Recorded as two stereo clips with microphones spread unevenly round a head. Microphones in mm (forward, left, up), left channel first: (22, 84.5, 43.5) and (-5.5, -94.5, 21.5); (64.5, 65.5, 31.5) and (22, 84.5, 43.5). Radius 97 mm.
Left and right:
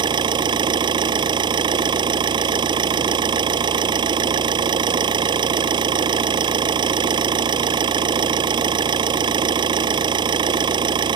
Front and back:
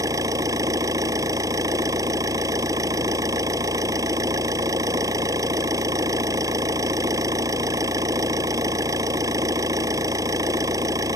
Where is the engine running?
170° right.